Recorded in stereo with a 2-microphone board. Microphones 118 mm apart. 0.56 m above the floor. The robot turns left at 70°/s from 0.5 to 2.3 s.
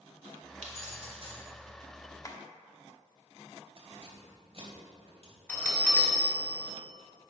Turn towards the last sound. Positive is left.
turn(degrees=15)  # may be behind; listen again after turning